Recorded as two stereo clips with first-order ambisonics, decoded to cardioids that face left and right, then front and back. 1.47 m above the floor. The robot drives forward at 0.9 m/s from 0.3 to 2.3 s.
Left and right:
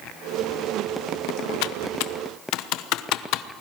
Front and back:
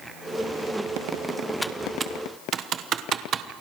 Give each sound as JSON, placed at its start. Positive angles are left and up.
{"t": 1.6, "sound": "typing on a keyboard", "azimuth_deg": 85, "distance_m": 0.9}